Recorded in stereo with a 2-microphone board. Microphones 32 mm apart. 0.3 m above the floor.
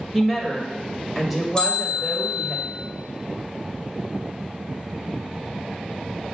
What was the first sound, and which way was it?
A woman speaking, 5° right (ahead or behind).